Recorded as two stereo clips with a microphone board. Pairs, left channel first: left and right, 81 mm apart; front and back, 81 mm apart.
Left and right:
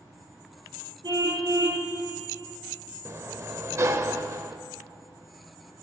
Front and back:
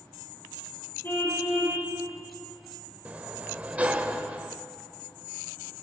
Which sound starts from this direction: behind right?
A sliding door, at 3.0 s.